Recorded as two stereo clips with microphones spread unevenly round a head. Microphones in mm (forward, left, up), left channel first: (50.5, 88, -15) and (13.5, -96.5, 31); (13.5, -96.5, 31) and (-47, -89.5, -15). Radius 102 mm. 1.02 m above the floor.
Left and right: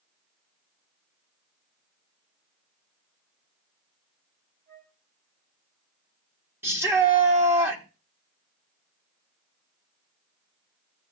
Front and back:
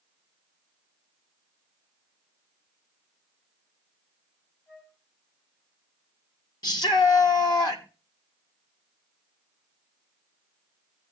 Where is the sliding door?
No sliding door in this recording.